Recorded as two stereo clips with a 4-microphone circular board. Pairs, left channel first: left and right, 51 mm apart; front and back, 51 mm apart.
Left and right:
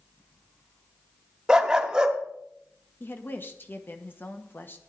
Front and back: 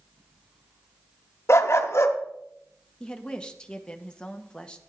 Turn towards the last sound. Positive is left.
turn(degrees=70)